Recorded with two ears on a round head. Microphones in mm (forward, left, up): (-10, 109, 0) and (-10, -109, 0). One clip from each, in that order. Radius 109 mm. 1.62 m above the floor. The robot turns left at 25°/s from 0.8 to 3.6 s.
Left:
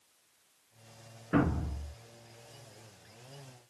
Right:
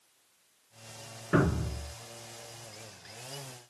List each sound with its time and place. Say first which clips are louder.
1.3 s a thud: right 2 dB; 35° right (ahead or behind), 2.0 m; by 1.9 s 25° right (ahead or behind), 2.0 m